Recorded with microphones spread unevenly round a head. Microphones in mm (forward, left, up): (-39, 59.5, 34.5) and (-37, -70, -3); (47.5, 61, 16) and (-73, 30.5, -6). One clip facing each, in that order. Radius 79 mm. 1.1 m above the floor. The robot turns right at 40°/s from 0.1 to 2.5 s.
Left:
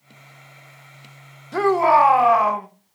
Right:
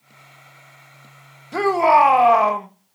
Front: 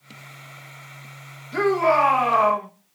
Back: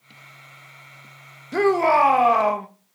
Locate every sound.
1.5 s a shout: 165° right, 1.1 m; by 2.7 s 125° right, 1.1 m